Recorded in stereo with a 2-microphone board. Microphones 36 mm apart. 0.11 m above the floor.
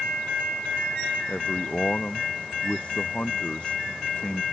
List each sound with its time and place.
1.3 s a man speaking: 30° left (ahead or behind)